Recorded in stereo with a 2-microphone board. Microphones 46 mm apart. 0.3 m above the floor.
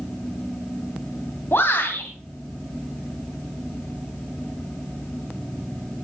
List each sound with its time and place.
1.5 s a shout: 55° left (ahead or behind), 2 m